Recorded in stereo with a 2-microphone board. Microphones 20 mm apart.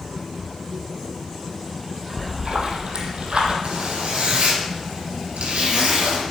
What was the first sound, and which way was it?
A splash, 55° right (ahead or behind).